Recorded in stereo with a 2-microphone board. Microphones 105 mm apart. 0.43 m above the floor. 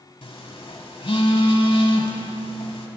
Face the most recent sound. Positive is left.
turn(degrees=65)  # may be behind; listen again after turning